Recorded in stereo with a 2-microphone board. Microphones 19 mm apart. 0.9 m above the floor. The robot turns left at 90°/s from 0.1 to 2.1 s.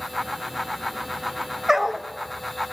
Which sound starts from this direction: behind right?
A dog barking, at 1.7 s.